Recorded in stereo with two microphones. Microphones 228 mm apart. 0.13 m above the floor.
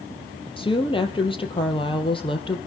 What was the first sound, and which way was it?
A woman speaking, 20° left (ahead or behind).